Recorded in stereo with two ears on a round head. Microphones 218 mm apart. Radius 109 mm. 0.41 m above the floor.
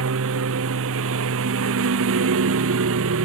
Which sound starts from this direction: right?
A lawn mower, at 0.0 s.